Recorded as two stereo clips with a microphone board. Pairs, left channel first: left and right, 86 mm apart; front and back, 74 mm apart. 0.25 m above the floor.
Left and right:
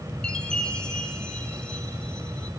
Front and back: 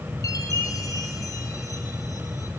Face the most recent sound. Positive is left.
turn(degrees=10)